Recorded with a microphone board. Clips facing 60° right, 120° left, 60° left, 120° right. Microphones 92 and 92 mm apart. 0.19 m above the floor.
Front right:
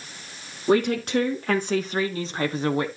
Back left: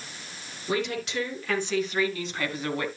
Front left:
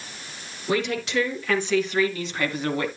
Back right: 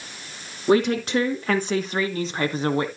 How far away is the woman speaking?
About 3 m.